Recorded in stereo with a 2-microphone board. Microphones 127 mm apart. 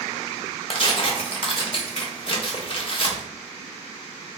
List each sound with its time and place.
0.7 s tearing paper: 45° left (ahead or behind), 0.5 m